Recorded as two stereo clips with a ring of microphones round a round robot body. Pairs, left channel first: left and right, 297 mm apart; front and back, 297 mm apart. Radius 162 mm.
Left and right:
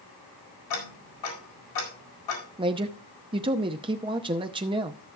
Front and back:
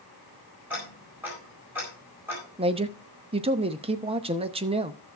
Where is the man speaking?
140° right, 0.7 m.